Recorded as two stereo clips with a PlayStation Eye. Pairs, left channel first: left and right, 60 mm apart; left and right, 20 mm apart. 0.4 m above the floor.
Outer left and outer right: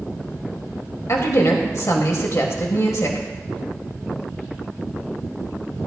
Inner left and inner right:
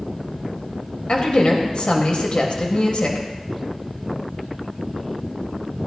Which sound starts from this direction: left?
A woman speaking, at 1.1 s.